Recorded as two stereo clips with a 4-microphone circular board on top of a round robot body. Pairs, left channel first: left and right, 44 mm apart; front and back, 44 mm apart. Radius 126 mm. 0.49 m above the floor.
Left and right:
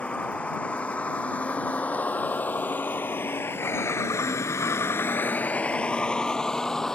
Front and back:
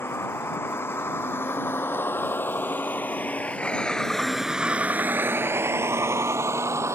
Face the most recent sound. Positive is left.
turn(degrees=170)